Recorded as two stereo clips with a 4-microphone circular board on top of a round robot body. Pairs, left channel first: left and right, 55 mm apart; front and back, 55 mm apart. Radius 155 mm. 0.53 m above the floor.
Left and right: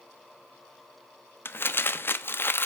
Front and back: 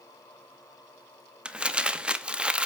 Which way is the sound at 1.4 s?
115° left.